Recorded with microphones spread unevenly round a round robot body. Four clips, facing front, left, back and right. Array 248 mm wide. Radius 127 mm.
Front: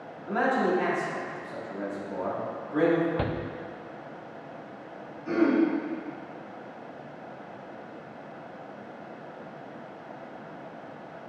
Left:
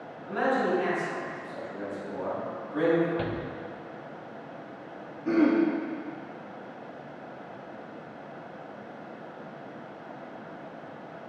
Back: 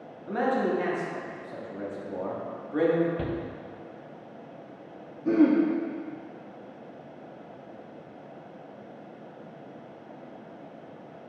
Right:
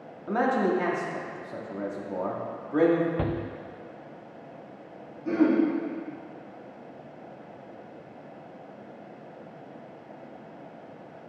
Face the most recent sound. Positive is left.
turn(degrees=170)